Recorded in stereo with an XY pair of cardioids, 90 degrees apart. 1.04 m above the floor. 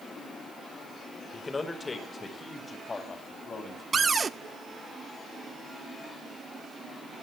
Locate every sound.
1.3 s a man speaking: 25° left, 3.5 m; by 3.8 s 40° left, 7 m
3.9 s a cupboard door: 40° right, 0.6 m